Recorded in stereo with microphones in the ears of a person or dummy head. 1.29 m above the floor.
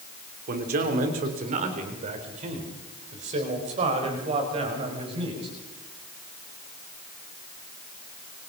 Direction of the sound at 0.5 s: 50° right (ahead or behind).